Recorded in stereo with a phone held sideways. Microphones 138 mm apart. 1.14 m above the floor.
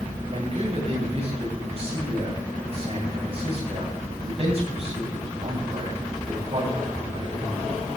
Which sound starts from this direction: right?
A man speaking, at 0.3 s.